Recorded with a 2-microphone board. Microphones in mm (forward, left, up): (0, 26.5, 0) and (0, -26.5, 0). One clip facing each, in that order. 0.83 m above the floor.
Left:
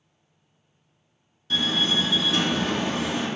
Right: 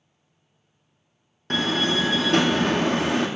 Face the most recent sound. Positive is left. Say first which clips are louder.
# right 2 dB
turn(degrees=-55)  # may be behind; listen again after turning